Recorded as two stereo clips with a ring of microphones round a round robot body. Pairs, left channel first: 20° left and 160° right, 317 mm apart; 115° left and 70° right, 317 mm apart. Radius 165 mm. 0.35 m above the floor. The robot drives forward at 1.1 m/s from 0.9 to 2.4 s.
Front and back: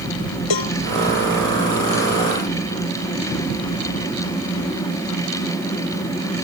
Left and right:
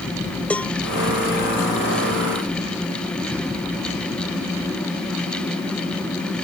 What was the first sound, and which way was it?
A cowbell, 25° left.